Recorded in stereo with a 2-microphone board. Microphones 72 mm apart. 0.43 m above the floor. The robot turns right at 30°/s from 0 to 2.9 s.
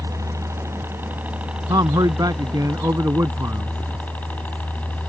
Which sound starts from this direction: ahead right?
A helicopter, at 0.0 s.